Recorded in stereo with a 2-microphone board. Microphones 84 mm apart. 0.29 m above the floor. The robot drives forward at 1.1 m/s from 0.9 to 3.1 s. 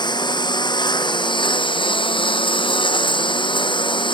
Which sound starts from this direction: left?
A lawn mower, at 0.0 s.